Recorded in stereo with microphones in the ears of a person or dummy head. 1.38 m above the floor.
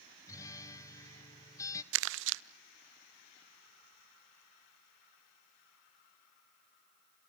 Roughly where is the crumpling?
Right.